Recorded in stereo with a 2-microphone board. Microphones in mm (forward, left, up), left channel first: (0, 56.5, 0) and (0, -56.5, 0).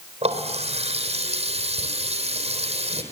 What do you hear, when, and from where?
0.2 s a running tap: 65° right (ahead or behind), 4 m